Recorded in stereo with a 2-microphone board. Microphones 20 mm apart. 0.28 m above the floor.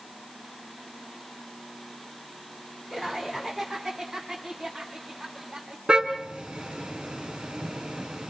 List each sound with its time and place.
2.9 s laughter: 15° left (ahead or behind), 2.5 m; by 5.8 s 35° right (ahead or behind), 3 m
5.9 s a car horn: 45° right (ahead or behind), 2 m